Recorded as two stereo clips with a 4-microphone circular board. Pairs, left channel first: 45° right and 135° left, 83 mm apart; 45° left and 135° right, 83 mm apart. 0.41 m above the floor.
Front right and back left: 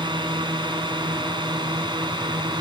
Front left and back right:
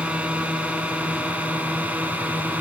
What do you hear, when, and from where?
0.0 s a drone: 150° left; by 2.6 s 155° left